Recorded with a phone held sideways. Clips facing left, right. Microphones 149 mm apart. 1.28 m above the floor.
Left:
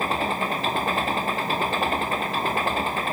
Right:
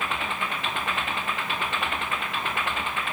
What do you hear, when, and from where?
0.0 s an engine running: 35° left (ahead or behind)